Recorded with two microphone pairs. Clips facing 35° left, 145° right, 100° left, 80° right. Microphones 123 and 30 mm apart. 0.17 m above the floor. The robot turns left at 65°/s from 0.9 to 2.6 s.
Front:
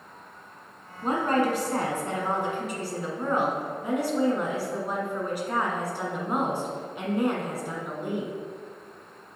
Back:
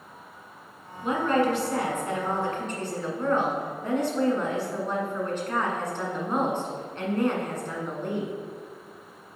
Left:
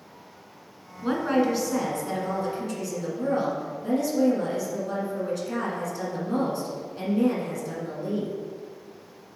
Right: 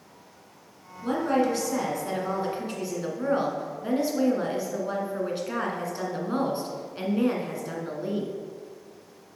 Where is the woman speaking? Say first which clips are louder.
Back 1 dB, left 1 dB; 60° left, 1.4 m; by 8.3 s 40° right, 1.4 m.